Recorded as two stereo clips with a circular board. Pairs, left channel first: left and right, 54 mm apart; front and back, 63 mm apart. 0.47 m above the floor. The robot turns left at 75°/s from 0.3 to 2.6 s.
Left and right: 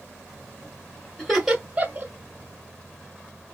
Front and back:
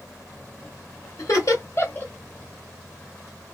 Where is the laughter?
20° left, 1.3 m; by 2.1 s 50° right, 1.3 m.